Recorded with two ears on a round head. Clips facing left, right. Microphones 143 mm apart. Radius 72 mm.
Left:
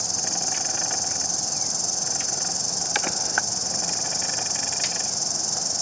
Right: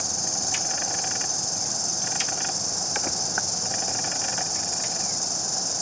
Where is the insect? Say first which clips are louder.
Left 1 dB; 25° left (ahead or behind), 4.5 m.